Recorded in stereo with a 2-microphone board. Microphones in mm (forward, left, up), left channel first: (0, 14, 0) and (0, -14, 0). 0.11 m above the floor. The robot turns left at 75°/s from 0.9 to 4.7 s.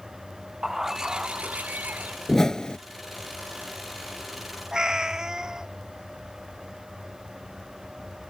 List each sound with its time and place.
0.6 s a bird: 15° right; by 2.2 s 115° right
2.3 s a whoosh: 160° left; by 2.8 s 125° left
4.7 s a cat meowing: 25° right (ahead or behind)